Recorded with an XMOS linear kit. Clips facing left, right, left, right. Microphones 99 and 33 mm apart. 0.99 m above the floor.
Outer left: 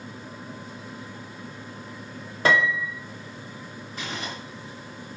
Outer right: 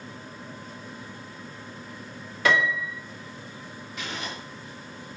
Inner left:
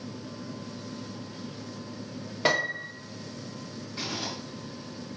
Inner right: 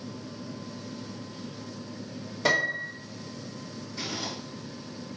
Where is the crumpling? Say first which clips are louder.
Outer left 1 dB, even; 40° left (ahead or behind), 4.5 m.